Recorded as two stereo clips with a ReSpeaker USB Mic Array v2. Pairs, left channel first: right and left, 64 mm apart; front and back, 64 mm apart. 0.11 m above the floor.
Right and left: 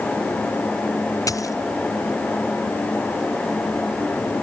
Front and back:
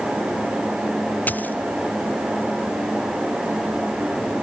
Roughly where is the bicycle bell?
I don't hear a bicycle bell.